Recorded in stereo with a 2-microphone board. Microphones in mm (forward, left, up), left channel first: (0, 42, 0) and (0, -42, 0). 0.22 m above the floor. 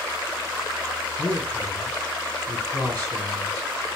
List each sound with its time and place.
1.2 s a man speaking: 30° left (ahead or behind), 1.9 m